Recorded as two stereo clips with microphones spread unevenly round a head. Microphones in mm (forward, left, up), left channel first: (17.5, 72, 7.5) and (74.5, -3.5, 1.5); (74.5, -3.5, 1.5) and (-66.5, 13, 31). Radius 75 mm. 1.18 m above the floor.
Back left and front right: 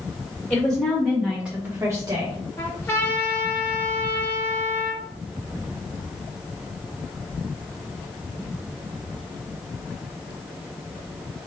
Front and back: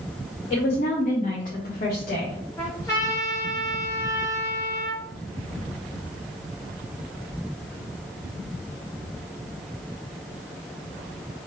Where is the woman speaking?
50° left, 2 m; by 2.4 s 20° right, 1.3 m.